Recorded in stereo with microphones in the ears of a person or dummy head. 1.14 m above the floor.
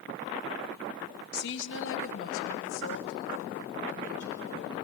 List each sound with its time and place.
1.3 s a woman speaking: 60° left (ahead or behind), 1.0 m